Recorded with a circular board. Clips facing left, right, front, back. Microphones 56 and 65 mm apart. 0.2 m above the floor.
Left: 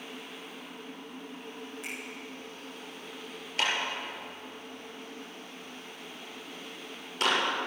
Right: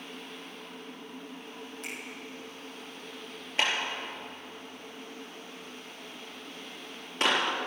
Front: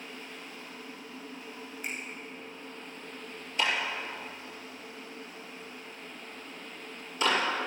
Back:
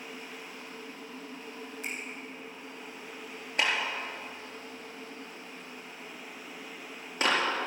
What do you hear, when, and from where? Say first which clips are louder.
1.8 s a finger snap: even, front 1 dB; 170° left, 7 m
3.6 s a clap: right 1 dB, even; 150° right, 4 m